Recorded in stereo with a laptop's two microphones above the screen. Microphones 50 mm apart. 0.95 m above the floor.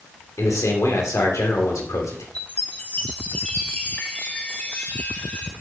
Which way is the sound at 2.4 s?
25° left (ahead or behind).